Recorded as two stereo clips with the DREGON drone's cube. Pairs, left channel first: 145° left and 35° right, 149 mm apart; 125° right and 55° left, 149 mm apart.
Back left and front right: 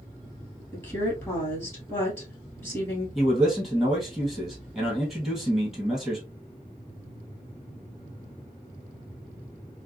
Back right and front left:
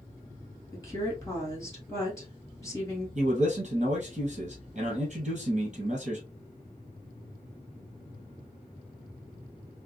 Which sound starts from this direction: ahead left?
A man speaking, at 3.1 s.